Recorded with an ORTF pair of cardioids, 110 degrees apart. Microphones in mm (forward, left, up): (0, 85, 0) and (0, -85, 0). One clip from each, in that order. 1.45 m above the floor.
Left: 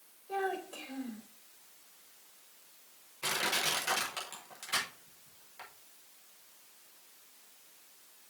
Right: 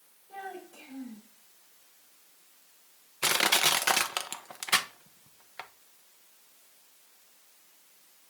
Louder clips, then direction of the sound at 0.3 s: Left 6 dB; 65° left.